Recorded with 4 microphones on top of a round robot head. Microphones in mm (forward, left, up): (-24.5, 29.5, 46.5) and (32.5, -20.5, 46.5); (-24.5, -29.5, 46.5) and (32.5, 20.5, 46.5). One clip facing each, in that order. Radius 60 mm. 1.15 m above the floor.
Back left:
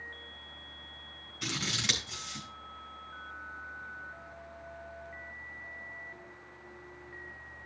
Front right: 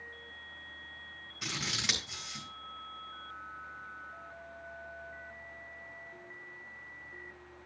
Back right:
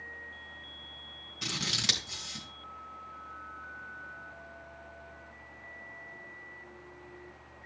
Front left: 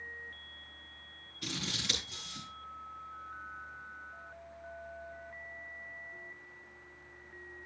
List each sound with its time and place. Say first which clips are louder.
1.4 s scissors: back left 2 dB, back right 3 dB; 130° right, 3.5 m